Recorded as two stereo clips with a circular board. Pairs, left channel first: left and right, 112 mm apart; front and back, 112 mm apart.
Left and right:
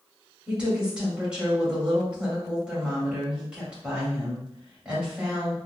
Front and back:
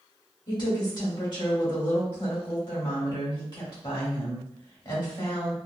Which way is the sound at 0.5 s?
15° right.